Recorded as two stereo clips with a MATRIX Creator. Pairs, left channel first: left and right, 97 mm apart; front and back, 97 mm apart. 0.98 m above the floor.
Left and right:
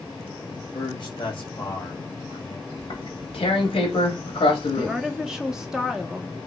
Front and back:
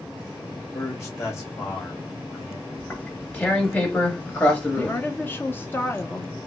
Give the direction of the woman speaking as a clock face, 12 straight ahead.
1 o'clock.